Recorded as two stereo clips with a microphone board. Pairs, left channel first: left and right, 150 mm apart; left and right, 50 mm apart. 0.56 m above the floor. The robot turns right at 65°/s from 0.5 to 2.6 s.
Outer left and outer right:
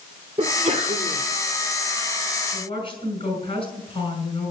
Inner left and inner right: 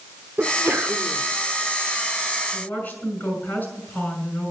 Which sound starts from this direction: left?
A woman speaking, at 2.5 s.